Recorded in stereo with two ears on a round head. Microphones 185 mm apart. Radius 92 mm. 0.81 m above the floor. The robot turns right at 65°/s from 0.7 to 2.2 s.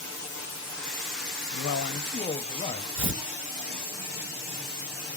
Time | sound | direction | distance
1.5 | a man speaking | 105° left | 0.7 m
3.0 | tearing paper | 70° right (ahead or behind) | 1.9 m